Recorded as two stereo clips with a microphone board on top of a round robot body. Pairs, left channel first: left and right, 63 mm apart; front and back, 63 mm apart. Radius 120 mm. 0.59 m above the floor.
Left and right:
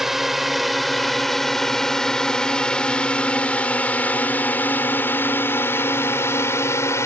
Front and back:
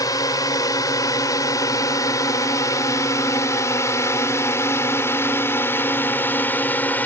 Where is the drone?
5° right; by 7.1 s 60° left.